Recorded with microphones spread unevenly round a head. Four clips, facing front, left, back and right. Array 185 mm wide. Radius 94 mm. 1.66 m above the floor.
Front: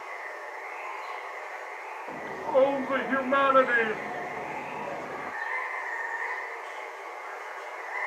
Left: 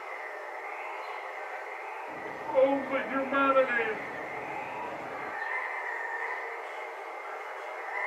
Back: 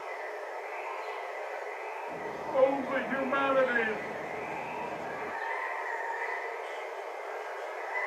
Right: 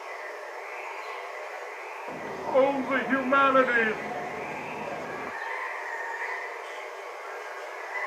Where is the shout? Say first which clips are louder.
Right 6 dB, front 7 dB; 55° right, 0.6 m.